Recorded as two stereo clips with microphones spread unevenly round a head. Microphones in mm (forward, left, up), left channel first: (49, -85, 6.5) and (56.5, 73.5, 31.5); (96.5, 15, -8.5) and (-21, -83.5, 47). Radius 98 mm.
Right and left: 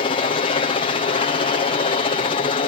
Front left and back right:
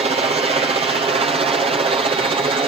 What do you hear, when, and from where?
0.0 s a helicopter: 85° right; by 2.7 s 75° right